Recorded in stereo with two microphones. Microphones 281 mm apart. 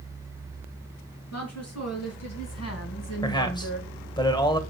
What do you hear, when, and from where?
1.3 s a woman speaking: 65° left (ahead or behind), 4.5 m; by 3.9 s 40° left (ahead or behind), 1.3 m
3.2 s a man speaking: 15° left (ahead or behind), 1.6 m